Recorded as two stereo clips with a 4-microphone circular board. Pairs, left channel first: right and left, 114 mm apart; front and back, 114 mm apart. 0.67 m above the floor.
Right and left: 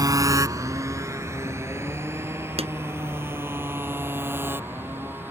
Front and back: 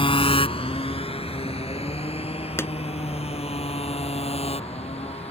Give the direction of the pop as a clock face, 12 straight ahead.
10 o'clock.